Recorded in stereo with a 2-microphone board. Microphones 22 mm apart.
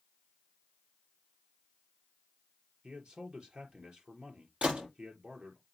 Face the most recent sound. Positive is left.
turn(degrees=-75)  # may be behind; listen again after turning